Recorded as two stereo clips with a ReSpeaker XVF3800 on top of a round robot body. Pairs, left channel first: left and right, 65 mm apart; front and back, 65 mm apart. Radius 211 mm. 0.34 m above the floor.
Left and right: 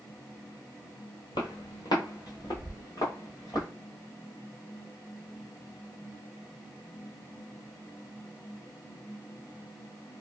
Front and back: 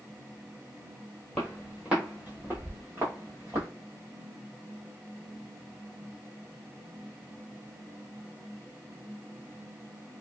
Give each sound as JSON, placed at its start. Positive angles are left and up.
{"t": 1.4, "sound": "footsteps", "azimuth_deg": 80, "distance_m": 0.8}